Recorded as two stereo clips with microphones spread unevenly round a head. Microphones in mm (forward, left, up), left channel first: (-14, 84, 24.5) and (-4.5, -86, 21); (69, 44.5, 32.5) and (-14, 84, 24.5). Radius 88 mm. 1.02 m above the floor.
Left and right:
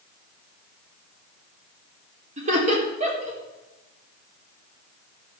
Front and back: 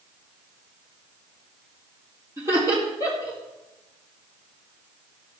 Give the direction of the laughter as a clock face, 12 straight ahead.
5 o'clock.